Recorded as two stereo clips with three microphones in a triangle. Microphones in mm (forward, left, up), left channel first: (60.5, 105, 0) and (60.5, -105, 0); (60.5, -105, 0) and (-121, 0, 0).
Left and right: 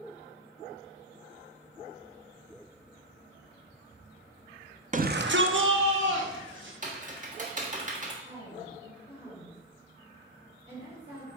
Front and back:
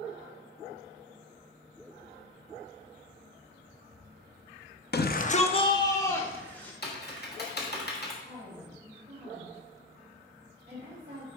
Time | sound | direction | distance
4.9 | a shout | 45° right | 0.6 m
6.8 | typing on a keyboard | 50° right | 1.3 m
8.2 | a woman speaking | 150° right | 3 m